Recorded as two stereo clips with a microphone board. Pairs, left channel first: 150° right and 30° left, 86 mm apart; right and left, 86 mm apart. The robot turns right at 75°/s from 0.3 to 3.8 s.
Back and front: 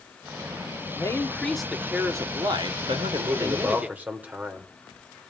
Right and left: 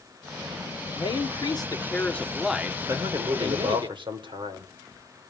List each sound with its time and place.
0.9 s a man speaking: 110° right, 1.2 m; by 3.9 s 105° left, 1.2 m
2.9 s a man speaking: 30° left, 2.5 m; by 4.7 s 100° left, 2.5 m